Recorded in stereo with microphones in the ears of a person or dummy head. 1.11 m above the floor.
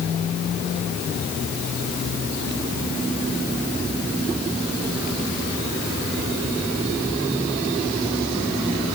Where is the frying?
No frying in this recording.